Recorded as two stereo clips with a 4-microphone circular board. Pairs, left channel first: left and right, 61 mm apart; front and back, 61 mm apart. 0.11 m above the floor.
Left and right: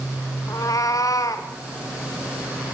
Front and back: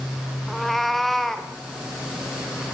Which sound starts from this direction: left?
A cat meowing, at 0.5 s.